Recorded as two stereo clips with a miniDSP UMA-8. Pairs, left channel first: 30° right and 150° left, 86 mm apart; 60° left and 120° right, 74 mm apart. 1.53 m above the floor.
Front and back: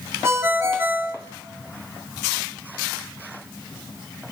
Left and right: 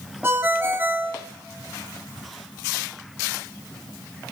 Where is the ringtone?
165° right, 1.2 m.